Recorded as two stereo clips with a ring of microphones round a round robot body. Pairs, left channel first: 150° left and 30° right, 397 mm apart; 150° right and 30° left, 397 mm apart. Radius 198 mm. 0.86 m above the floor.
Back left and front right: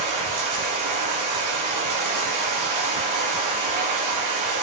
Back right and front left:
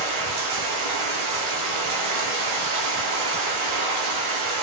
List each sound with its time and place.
0.0 s running water: 15° left, 1.3 m